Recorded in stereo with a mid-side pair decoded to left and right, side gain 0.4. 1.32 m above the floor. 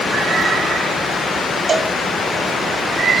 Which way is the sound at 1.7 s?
50° right.